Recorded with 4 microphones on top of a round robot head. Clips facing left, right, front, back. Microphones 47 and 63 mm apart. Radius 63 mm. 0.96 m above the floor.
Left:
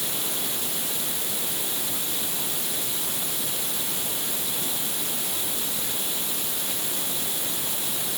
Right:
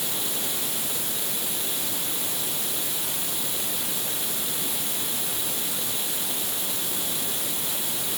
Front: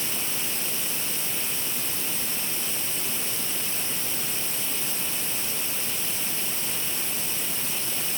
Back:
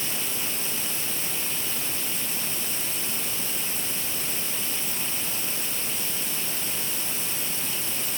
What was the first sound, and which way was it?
Only background noise.